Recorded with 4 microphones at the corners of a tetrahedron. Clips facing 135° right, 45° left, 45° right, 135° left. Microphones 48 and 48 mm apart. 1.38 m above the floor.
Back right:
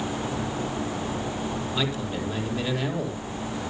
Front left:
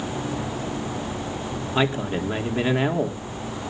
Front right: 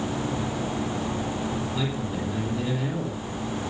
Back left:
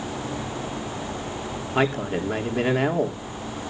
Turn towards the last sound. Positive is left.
turn(degrees=100)